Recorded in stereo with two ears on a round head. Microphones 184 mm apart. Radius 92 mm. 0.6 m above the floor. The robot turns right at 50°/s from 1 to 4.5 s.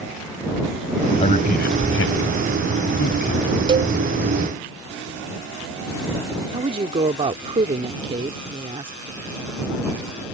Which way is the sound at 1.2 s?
30° left (ahead or behind).